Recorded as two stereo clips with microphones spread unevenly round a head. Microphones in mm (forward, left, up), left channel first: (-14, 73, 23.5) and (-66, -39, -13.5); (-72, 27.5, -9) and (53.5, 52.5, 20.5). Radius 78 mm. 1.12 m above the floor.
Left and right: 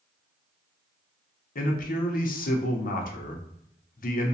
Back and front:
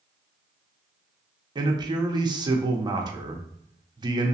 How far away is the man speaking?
About 0.8 m.